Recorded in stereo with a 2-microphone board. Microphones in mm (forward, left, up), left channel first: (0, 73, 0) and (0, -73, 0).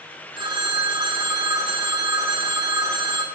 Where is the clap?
No clap in this recording.